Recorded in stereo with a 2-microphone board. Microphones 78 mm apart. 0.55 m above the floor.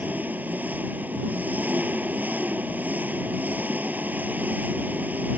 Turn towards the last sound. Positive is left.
turn(degrees=-25)  # may be behind; listen again after turning